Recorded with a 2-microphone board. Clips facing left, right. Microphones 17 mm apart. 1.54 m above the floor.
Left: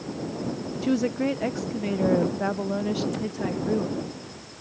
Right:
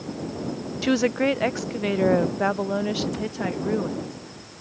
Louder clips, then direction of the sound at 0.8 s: Right 3 dB; 40° right (ahead or behind).